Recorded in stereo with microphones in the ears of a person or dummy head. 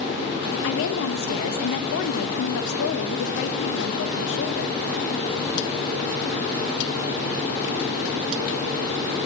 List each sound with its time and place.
0.6 s a woman speaking: 65° left (ahead or behind), 0.9 m